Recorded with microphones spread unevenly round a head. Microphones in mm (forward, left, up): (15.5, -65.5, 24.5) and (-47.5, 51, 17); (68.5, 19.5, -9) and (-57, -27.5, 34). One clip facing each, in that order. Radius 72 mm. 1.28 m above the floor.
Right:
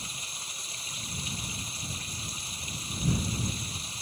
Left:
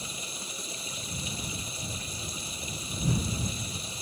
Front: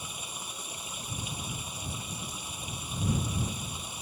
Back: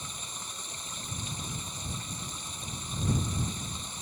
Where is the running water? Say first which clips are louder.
Left 4 dB, front 1 dB; 105° left.